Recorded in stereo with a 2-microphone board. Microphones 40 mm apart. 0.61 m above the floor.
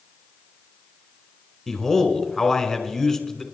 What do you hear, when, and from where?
1.7 s a man speaking: 5° left (ahead or behind), 2 m